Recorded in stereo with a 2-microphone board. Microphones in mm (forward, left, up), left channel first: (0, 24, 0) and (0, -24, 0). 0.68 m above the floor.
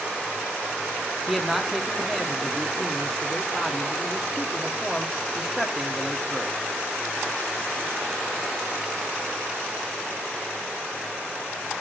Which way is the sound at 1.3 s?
5° right (ahead or behind).